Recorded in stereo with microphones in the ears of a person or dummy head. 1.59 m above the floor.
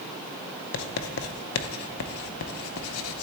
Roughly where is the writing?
Left.